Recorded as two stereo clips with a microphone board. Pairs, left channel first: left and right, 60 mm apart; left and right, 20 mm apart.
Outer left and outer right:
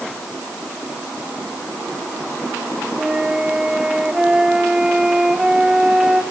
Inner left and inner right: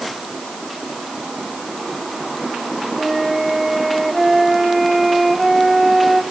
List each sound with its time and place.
3.0 s a flute: 15° right (ahead or behind), 1.5 m